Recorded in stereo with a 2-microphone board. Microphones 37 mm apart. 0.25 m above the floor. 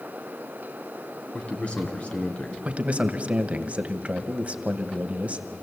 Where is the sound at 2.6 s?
35° right (ahead or behind), 1.1 m.